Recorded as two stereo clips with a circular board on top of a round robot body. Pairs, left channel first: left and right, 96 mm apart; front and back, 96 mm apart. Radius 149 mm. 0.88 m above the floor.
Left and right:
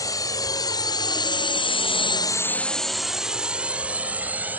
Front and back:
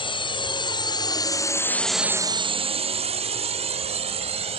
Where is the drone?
35° left; by 4.6 s 165° right.